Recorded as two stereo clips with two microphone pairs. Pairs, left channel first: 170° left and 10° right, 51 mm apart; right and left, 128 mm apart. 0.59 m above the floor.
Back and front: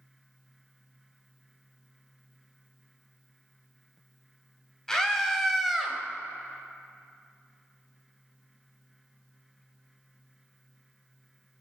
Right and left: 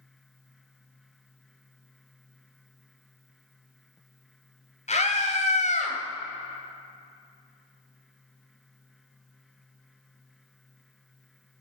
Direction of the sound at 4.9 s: 110° right.